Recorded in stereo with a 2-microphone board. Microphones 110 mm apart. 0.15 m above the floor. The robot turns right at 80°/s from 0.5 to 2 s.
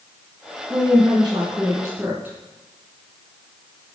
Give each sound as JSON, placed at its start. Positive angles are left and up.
{"t": 0.7, "sound": "a woman speaking", "azimuth_deg": -130, "distance_m": 1.9}